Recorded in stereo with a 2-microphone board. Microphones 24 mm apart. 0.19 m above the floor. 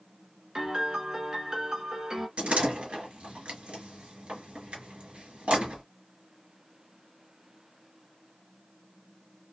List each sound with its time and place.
0.6 s a piano: 35° right (ahead or behind), 1.0 m
2.4 s a door slam: 60° right (ahead or behind), 1.9 m